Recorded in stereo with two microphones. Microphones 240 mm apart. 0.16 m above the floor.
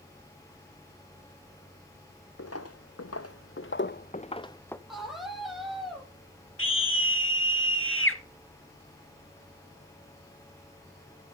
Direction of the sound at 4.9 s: Centre (ahead or behind).